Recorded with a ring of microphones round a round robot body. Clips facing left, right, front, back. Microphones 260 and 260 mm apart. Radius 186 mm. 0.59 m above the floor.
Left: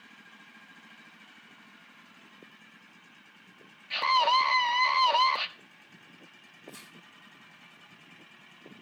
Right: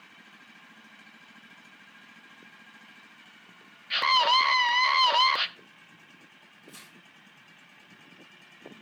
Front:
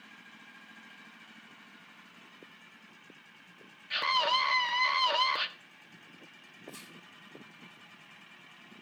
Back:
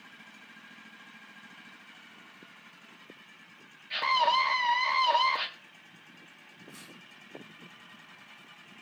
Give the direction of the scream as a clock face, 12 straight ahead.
2 o'clock.